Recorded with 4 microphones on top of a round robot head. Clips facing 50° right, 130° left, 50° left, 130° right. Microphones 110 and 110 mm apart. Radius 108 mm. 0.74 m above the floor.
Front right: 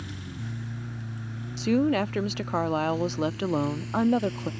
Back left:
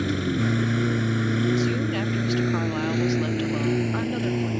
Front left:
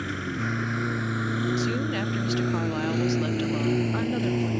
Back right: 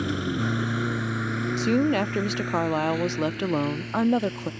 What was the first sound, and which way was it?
A lawn mower, 160° left.